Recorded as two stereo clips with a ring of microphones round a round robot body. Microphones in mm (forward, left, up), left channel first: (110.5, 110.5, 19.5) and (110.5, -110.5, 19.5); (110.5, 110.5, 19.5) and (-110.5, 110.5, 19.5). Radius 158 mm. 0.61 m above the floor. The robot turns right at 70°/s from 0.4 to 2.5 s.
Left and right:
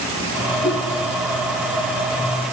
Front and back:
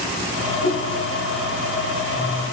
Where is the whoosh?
45° left, 5.5 m; by 0.8 s 60° left, 5.5 m.